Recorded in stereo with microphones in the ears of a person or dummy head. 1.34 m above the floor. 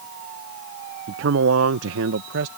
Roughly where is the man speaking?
Right.